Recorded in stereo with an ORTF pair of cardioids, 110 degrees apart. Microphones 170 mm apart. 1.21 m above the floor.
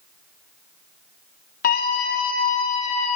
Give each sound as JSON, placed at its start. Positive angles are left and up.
{"t": 1.6, "sound": "a scream", "azimuth_deg": 65, "distance_m": 2.5}